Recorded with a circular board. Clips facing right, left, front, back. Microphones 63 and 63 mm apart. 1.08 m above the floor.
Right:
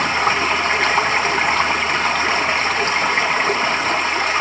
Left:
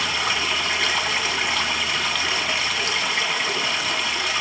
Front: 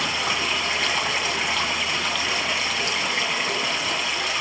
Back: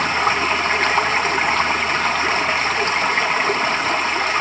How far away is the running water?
About 1.9 m.